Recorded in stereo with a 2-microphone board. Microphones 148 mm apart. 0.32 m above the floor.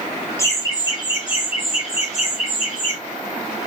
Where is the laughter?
20° left (ahead or behind), 1.3 m; by 3.0 s 55° left (ahead or behind), 2 m.